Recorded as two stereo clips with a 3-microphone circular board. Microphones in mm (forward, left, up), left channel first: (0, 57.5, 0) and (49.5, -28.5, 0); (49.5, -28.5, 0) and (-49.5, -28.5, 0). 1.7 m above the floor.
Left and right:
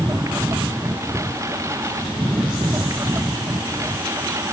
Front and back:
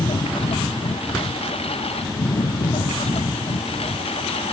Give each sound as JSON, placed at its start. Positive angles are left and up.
{"t": 0.0, "sound": "a lawn mower", "azimuth_deg": 0}